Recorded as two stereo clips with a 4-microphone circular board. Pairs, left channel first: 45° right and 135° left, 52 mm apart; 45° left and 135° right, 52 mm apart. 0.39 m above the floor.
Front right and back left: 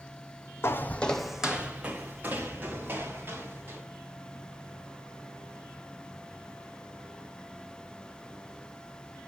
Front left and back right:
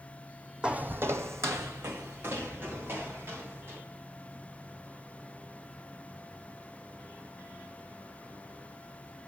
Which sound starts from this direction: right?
Footsteps, at 0.6 s.